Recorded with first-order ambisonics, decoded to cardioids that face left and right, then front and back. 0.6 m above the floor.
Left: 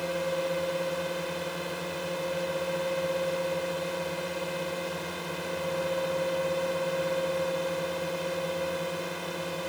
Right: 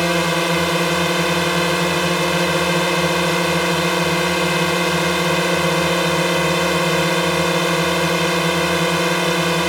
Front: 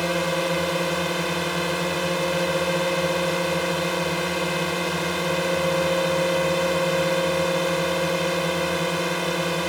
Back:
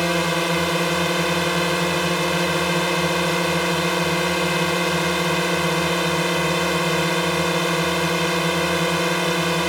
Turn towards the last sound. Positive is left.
turn(degrees=-110)